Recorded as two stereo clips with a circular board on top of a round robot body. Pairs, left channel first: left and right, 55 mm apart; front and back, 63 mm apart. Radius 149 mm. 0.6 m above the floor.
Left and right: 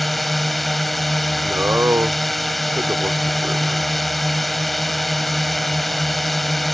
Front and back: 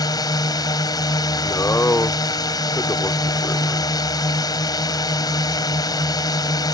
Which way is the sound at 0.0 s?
Straight ahead.